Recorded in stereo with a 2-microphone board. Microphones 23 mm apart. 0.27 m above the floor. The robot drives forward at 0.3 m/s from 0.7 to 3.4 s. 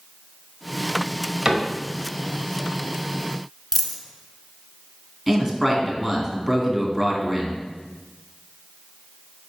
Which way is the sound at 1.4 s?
20° right (ahead or behind).